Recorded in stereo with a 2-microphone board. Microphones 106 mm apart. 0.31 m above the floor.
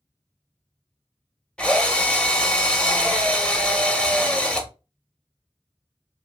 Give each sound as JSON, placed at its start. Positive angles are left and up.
{"t": 1.6, "sound": "a drill", "side_deg": 10, "distance_m": 0.5}